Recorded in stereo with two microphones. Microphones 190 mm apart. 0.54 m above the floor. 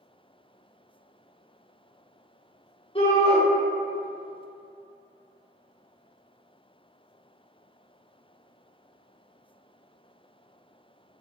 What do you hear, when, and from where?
3.0 s a shout: 30° left (ahead or behind), 0.7 m